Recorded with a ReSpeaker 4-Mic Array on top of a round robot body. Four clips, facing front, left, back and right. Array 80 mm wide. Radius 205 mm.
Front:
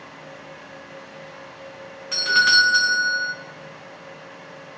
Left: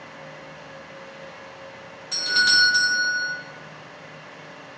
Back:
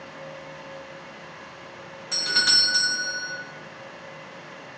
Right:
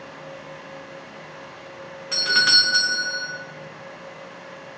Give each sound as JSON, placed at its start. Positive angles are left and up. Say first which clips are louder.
{"t": 2.1, "sound": "a doorbell", "louder": "even, front 10 dB", "azimuth_deg": -55, "distance_m": 1.8}